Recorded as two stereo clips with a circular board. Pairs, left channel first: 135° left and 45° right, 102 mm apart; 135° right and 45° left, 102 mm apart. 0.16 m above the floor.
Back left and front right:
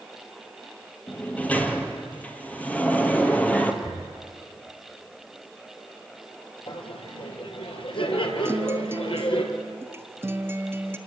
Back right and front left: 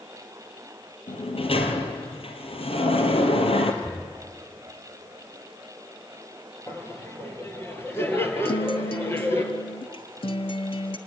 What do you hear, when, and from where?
1.1 s a sliding door: 150° right, 1.9 m
3.8 s knocking: 60° right, 4.5 m
6.7 s laughter: 160° left, 3 m
8.4 s a guitar: 110° right, 1.1 m